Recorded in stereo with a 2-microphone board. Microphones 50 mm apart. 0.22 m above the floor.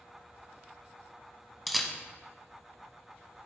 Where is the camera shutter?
Centre (ahead or behind), 1.0 m.